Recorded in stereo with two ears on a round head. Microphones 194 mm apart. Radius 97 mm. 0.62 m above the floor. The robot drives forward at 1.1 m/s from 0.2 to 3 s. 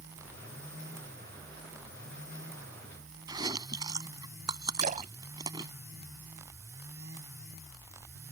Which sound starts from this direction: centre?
Chewing, at 3.3 s.